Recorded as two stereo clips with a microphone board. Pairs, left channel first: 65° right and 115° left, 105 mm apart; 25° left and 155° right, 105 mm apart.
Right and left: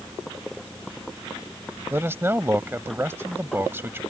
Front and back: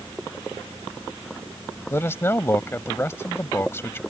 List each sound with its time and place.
1.9 s a man speaking: 65° left